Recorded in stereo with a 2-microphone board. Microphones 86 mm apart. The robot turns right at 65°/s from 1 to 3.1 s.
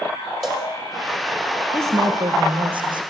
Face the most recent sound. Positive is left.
turn(degrees=-60)